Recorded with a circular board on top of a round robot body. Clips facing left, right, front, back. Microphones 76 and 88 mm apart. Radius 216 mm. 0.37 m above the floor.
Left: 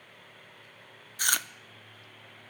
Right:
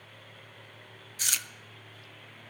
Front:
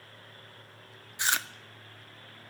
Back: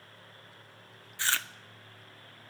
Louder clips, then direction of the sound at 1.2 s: Left 7 dB, front 2 dB; 70° left.